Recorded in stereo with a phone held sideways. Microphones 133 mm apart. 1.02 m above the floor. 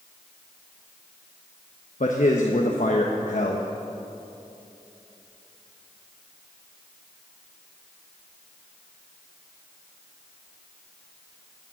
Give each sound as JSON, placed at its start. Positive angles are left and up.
{"t": 2.0, "sound": "a man speaking", "side_deg": 70, "distance_m": 1.0}